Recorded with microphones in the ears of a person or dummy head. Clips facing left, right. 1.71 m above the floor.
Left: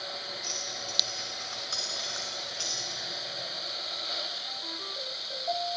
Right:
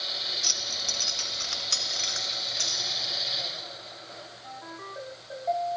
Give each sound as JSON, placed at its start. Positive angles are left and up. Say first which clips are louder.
{"t": 0.4, "sound": "keys jangling", "louder": "left 1 dB", "side_deg": -65, "distance_m": 1.7}